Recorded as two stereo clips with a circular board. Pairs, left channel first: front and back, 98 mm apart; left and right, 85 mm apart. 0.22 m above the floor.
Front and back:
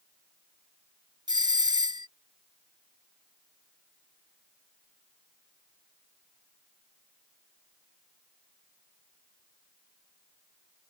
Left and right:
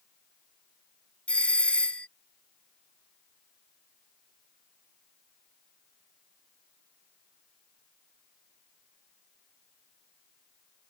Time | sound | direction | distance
1.3 | a doorbell | 165° left | ?